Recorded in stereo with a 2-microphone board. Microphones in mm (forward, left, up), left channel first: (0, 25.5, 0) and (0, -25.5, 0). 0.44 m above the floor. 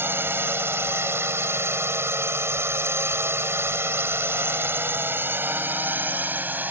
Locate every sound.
0.0 s a drone: 50° right (ahead or behind); by 6.7 s 35° right (ahead or behind)